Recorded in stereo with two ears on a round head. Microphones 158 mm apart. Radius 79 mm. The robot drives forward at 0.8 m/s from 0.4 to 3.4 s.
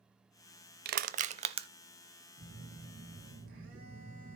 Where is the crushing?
60° right (ahead or behind), 0.6 m; by 1.7 s 30° right (ahead or behind), 1.0 m.